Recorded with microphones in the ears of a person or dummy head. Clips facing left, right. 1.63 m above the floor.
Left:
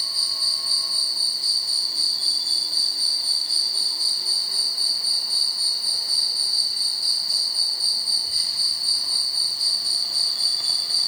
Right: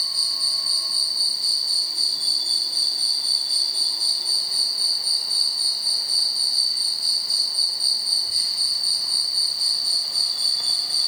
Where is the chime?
No chime in this recording.